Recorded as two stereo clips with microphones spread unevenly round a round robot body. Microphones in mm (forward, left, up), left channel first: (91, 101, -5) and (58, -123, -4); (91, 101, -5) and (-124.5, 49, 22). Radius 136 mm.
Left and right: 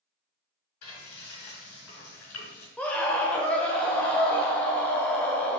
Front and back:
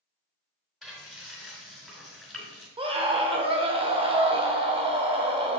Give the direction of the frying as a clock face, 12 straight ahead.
9 o'clock.